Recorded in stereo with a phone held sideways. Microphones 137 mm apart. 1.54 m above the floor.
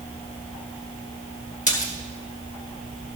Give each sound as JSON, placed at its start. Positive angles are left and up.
{"t": 1.7, "sound": "a splash", "side_deg": 70, "distance_m": 1.9}